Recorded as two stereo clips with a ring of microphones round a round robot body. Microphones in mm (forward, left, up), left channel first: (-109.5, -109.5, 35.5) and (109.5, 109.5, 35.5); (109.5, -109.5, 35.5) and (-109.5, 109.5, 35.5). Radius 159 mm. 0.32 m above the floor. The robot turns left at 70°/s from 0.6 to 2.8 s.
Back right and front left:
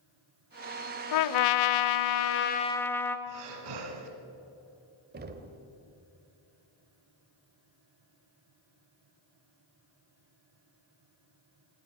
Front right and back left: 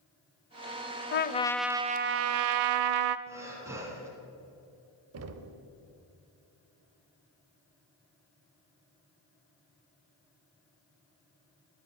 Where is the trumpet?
100° right, 0.5 m; by 3.2 s 140° left, 0.5 m.